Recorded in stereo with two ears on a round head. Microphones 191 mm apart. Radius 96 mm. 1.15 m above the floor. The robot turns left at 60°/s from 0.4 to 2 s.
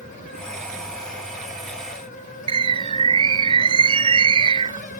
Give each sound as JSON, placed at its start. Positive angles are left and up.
{"t": 2.5, "sound": "a bird", "side_deg": -25}